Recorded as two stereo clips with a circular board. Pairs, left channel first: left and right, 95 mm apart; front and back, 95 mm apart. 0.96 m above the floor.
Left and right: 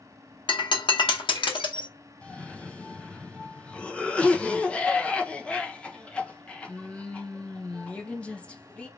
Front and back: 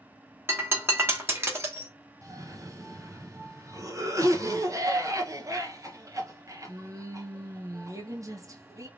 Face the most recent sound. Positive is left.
turn(degrees=160)